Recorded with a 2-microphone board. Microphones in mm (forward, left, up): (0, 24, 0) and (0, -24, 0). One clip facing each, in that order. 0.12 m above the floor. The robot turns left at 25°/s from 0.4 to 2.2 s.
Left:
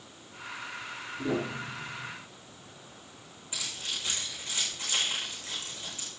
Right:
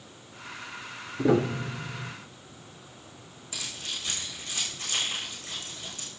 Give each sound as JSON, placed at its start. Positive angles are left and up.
{"t": 1.2, "sound": "a piano", "side_deg": -60, "distance_m": 0.8}
{"t": 3.5, "sound": "keys jangling", "side_deg": 30, "distance_m": 7.0}